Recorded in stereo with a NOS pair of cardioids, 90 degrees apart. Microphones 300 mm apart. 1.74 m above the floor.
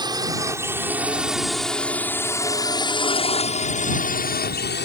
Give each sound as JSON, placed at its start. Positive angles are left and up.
{"t": 0.0, "sound": "a drone", "azimuth_deg": -15}